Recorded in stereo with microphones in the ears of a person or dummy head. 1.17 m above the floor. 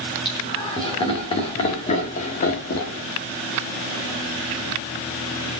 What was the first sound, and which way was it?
Laughter, 25° left (ahead or behind).